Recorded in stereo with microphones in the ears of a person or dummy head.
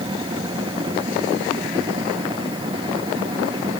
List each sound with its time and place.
0.0 s a machine running: 25° right (ahead or behind)